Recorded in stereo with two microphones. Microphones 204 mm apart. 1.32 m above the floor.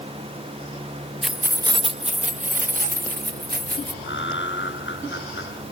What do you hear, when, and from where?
1.2 s keys jangling: centre (ahead or behind); by 3.9 s 50° right (ahead or behind)
4.0 s laughter: 65° left (ahead or behind)